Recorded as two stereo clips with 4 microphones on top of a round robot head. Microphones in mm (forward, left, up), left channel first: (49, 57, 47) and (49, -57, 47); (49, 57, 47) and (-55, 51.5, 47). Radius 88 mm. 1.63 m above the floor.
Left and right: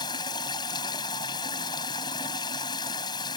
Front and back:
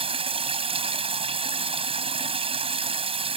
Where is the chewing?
No chewing in this recording.